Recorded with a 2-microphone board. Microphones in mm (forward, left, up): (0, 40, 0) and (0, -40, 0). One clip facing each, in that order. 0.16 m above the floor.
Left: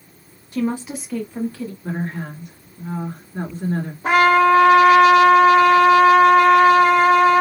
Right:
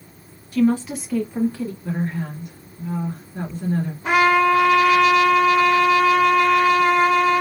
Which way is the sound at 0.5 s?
25° left (ahead or behind).